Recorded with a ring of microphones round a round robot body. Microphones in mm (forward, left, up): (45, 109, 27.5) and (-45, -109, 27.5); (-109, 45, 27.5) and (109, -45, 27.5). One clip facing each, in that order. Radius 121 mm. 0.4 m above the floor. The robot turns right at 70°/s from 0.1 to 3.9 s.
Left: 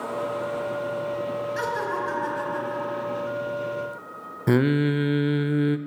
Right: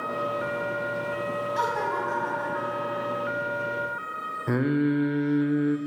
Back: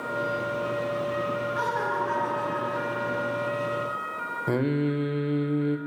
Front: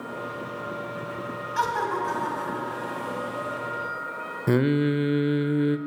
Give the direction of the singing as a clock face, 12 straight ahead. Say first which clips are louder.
Left 3 dB, front 3 dB; 11 o'clock.